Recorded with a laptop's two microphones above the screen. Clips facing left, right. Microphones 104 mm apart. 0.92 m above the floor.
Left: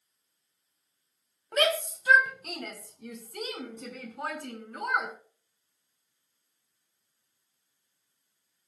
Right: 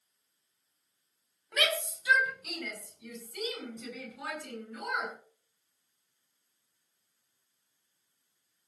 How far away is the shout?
About 5 m.